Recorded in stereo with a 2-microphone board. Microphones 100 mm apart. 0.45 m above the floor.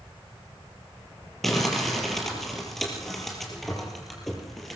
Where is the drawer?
I don't hear a drawer.